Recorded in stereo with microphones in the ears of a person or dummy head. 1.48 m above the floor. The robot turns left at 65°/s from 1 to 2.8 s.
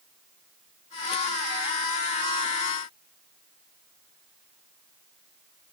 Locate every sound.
Only background noise.